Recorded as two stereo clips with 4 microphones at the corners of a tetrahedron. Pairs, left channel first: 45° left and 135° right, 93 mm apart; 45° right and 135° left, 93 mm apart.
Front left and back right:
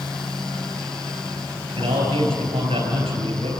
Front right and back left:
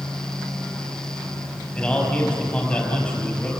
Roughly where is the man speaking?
Behind right.